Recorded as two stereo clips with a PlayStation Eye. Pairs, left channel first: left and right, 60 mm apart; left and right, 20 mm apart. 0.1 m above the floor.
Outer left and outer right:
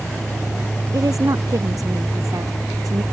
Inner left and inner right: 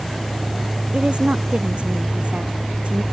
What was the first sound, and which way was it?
A woman speaking, 70° right (ahead or behind).